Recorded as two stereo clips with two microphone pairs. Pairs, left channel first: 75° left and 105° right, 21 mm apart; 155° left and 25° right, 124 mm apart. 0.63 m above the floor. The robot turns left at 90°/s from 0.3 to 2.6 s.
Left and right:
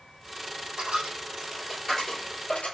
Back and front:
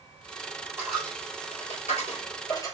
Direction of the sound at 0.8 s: 100° right.